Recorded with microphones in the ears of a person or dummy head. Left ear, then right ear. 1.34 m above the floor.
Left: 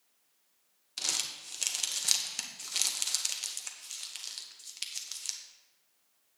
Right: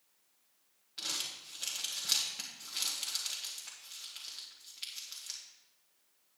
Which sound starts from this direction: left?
Crumpling, at 1.0 s.